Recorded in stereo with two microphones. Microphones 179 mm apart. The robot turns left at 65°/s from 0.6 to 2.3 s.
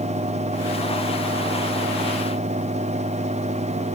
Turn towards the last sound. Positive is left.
No sound to turn to.